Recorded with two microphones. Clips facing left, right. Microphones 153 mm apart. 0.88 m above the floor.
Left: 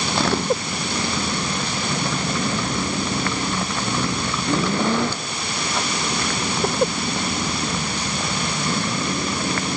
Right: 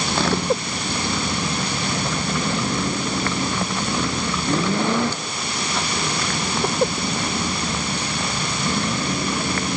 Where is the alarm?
No alarm in this recording.